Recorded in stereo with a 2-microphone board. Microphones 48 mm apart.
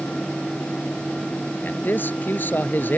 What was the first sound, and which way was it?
A man speaking, 40° left (ahead or behind).